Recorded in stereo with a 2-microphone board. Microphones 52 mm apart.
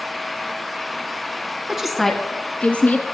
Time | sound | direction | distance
1.7 | a woman speaking | 15° right (ahead or behind) | 1.1 m